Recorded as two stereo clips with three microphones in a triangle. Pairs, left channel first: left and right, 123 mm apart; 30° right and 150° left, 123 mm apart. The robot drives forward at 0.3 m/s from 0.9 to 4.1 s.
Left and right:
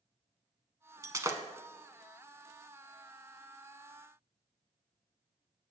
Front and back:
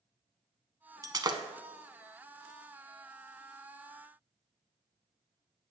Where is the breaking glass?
150° right, 0.7 m; by 1.4 s 155° right, 0.8 m.